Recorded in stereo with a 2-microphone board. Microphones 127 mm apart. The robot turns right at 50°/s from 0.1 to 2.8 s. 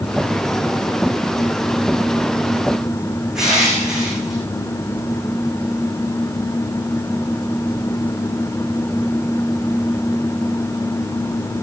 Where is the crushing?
5° right (ahead or behind), 7 m.